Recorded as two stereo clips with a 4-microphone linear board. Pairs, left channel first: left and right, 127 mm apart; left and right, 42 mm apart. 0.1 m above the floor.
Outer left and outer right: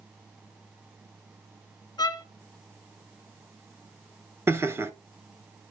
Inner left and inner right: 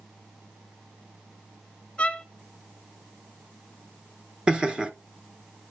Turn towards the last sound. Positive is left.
turn(degrees=-20)  # may be behind; listen again after turning